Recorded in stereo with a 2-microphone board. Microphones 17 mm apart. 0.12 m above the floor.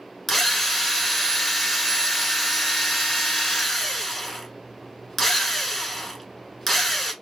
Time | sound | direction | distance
0.3 | a drill | 15° left (ahead or behind) | 1.0 m